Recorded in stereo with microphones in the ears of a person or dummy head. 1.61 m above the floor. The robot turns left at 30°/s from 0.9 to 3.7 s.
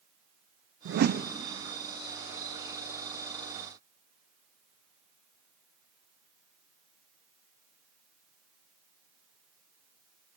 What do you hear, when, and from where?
0.8 s a whoosh: 60° right (ahead or behind), 0.6 m; by 1.3 s 45° right (ahead or behind), 0.6 m